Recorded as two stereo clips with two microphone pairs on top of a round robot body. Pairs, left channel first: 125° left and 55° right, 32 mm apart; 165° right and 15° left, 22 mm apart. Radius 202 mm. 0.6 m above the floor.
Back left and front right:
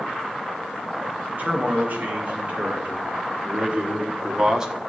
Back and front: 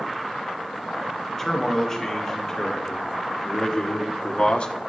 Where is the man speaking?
90° right, 3 m; by 4.7 s 130° right, 1.6 m.